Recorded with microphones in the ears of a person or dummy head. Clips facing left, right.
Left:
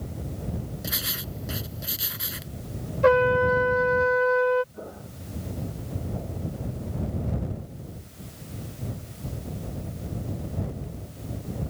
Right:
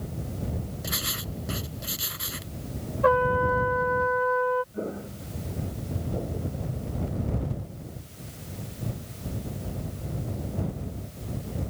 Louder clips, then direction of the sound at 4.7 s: Right 7 dB; 35° right (ahead or behind).